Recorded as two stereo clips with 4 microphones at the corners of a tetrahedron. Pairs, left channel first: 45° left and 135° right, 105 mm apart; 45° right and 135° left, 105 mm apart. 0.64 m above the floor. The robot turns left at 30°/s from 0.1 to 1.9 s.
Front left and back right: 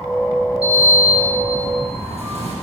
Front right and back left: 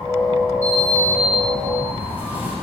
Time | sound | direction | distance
0.6 | a sliding door | 110° right | 3 m